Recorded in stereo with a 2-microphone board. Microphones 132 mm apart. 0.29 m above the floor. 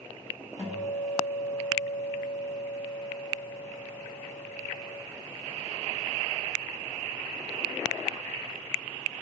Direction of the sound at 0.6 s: 65° left (ahead or behind).